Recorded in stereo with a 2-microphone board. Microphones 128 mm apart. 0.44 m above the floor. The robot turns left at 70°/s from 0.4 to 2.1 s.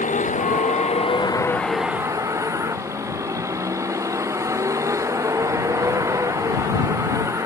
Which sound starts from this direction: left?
A vehicle, at 0.0 s.